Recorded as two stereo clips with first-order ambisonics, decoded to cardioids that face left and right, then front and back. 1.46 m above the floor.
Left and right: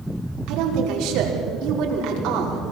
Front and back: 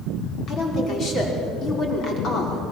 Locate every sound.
0.5 s a woman speaking: 55° right, 5 m